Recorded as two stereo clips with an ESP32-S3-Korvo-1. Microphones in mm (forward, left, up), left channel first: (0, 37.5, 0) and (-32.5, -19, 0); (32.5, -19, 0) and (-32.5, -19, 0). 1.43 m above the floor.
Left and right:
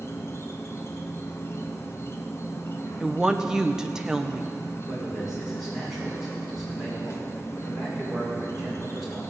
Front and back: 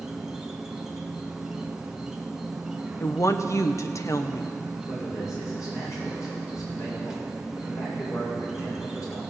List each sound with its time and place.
0.0 s an insect: 100° left, 1.0 m
3.0 s a woman speaking: 40° right, 0.8 m
4.9 s a man speaking: 35° right, 5.5 m